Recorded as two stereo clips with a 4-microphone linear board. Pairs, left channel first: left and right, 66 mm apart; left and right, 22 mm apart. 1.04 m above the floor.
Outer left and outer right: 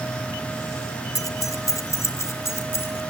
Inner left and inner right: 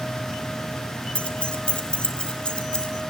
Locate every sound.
1.1 s keys jangling: 60° left (ahead or behind), 2.5 m; by 3.0 s 40° left (ahead or behind), 4.5 m